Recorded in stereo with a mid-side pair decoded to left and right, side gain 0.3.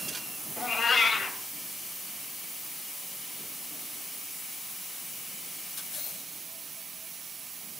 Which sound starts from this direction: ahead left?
A cat meowing, at 0.6 s.